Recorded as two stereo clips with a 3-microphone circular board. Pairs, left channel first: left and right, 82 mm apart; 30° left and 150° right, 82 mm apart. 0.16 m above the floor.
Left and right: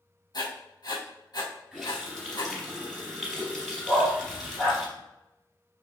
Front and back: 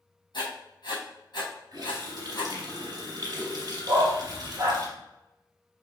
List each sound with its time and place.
0.3 s writing: 60° left, 3.5 m
1.7 s a running tap: straight behind, 2.5 m
3.9 s a dog barking: 155° left, 1.9 m